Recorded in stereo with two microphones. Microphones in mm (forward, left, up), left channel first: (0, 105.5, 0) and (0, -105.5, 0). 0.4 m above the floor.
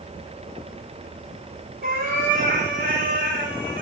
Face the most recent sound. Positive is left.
turn(degrees=-55)  # may be behind; listen again after turning